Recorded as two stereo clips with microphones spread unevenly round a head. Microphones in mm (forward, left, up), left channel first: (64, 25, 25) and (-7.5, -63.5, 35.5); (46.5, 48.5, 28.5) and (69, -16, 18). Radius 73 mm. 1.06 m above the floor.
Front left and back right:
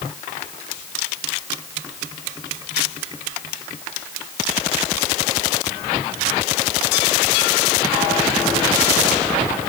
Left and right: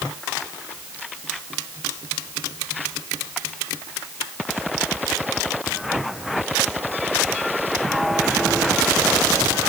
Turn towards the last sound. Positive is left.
No sound to turn to.